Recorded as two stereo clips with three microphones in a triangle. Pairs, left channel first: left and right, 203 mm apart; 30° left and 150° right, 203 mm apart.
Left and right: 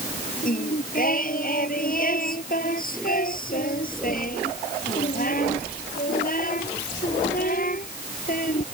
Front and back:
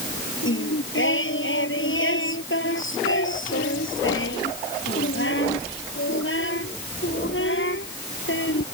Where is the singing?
45° left.